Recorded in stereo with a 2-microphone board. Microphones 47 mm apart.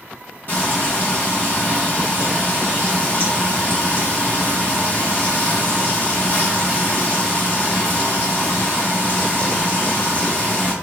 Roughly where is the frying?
Left.